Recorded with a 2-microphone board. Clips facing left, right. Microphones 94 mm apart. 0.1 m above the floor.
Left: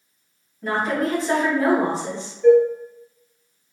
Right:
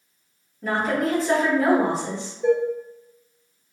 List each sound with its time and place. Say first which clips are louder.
0.6 s a woman speaking: even; centre (ahead or behind), 1.9 m
2.4 s dishes clattering: left 7 dB; 15° right (ahead or behind), 0.9 m